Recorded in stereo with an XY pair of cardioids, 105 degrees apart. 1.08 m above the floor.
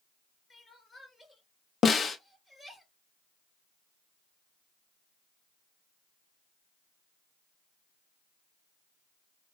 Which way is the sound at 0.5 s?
20° left.